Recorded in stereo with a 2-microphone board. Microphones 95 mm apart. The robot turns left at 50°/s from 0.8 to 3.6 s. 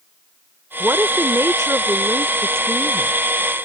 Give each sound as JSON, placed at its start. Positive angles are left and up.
{"t": 0.8, "sound": "a woman speaking", "azimuth_deg": -40}